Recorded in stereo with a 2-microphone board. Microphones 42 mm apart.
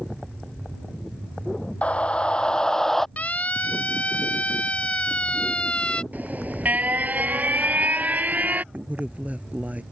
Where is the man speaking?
40° right (ahead or behind).